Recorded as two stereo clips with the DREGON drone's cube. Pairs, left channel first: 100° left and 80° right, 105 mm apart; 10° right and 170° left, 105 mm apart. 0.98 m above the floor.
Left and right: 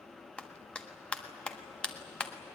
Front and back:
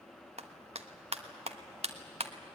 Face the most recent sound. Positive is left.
turn(degrees=180)